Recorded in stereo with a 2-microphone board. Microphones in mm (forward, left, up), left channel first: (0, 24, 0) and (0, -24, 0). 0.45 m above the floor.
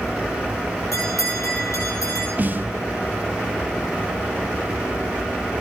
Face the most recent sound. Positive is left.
turn(degrees=-35)  # may be behind; listen again after turning